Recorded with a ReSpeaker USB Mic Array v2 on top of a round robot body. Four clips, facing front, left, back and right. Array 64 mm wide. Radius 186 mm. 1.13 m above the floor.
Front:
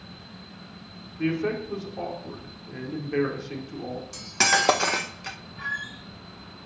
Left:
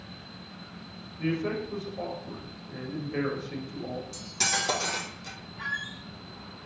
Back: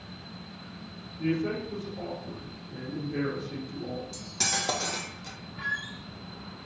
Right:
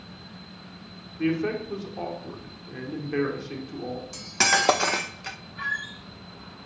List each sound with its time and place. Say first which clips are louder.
1.2 s a man speaking: right 4 dB, front 3 dB; 50° right, 4.5 m
4.1 s cutlery clinking: right 11 dB, front 11 dB; 45° right, 0.5 m
5.6 s a squeak: right 3 dB, front 1 dB; 90° right, 4.5 m